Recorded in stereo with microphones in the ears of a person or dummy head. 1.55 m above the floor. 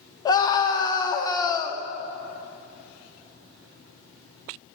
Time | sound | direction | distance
0.2 | a scream | 25° left (ahead or behind) | 0.9 m